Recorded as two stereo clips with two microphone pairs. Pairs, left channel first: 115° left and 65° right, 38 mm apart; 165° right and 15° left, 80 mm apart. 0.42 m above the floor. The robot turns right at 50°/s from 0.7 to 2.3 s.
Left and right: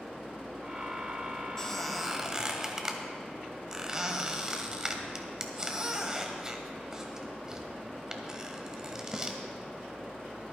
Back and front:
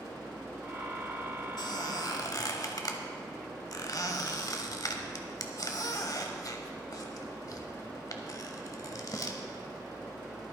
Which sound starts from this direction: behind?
A squeak, at 1.6 s.